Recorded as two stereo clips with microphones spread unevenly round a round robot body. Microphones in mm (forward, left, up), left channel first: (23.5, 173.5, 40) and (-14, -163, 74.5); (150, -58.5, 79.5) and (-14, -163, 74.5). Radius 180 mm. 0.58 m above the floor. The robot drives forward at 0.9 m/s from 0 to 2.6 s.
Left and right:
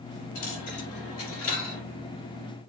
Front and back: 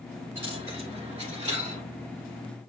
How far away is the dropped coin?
About 4 m.